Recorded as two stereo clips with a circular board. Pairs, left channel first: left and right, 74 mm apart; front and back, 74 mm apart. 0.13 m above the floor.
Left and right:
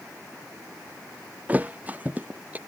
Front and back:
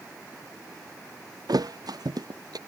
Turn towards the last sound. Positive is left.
turn(degrees=-160)